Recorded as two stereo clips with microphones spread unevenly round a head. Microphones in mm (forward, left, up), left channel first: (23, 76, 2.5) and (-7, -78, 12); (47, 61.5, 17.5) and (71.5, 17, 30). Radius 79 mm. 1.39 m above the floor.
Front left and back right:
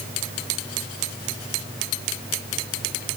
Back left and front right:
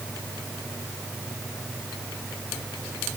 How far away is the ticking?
No ticking in this recording.